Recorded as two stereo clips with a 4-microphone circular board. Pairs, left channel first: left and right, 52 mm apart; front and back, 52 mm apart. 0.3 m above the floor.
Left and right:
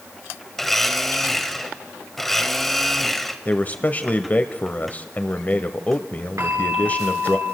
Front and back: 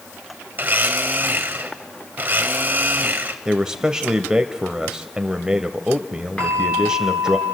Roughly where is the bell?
Right.